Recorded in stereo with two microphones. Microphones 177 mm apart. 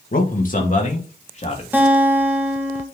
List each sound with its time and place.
0.1 s a man speaking: 55° left (ahead or behind), 1.9 m; by 1.6 s 40° left (ahead or behind), 3 m
1.7 s a guitar: 10° right (ahead or behind), 2 m